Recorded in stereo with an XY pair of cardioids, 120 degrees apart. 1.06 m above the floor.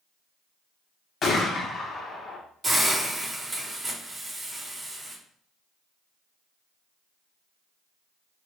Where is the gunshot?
40° left, 1.2 m.